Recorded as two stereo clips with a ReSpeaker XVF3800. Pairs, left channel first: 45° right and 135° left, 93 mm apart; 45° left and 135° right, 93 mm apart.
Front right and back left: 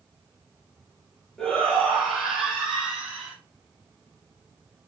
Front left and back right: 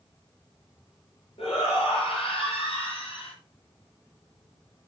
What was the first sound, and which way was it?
A shout, 40° left.